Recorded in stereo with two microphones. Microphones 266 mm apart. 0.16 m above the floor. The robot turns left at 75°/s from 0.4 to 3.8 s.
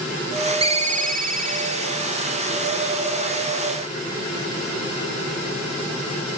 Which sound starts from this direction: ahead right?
A ringtone, at 0.6 s.